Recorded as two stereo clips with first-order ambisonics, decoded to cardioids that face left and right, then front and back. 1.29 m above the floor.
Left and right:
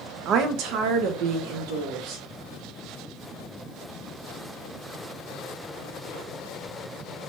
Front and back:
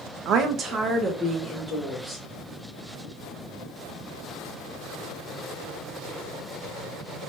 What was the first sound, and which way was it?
A woman speaking, 135° right.